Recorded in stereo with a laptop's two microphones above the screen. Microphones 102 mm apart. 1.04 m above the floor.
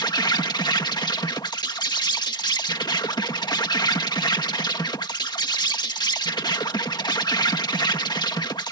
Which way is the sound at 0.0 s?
45° left (ahead or behind).